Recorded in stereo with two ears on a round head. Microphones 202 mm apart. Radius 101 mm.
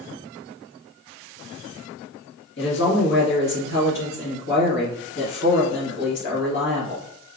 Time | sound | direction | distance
2.6 | a woman speaking | 50° left (ahead or behind) | 1.5 m